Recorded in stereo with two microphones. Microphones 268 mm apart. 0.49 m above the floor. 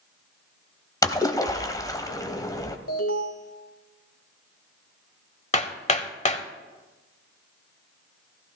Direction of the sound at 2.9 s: 60° left (ahead or behind).